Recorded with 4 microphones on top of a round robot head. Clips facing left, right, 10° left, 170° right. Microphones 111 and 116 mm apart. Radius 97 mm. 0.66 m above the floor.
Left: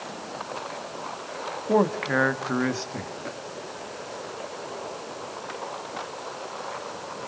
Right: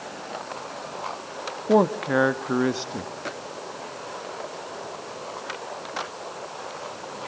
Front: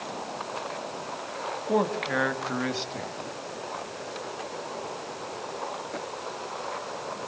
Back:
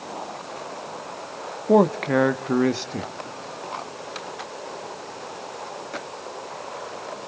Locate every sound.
1.7 s a man speaking: 155° right, 1.4 m